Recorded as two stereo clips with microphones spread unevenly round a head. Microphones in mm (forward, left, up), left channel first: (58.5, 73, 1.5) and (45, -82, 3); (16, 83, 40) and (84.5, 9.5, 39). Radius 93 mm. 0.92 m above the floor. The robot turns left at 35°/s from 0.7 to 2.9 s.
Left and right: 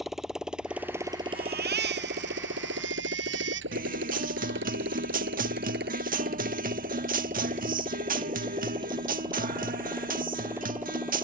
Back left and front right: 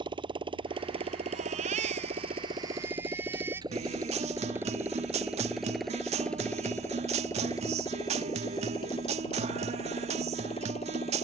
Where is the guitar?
65° right.